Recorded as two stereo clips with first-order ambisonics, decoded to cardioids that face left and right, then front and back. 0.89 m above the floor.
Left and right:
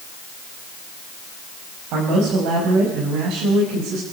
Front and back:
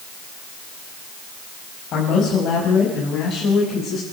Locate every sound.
1.9 s a man speaking: 55° right, 6 m; by 4.0 s 65° right, 6.5 m